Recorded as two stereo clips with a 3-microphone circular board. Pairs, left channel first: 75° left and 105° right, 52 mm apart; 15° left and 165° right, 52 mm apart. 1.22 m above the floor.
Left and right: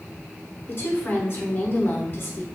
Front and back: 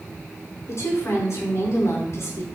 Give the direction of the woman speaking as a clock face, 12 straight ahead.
11 o'clock.